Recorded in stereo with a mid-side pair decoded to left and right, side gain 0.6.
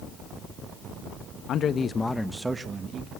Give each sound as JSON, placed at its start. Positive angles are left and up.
{"t": 1.5, "sound": "a man speaking", "azimuth_deg": 50, "distance_m": 1.4}